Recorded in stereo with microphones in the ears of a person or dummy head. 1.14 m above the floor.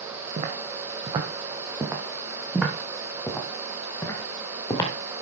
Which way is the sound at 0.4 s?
40° right (ahead or behind).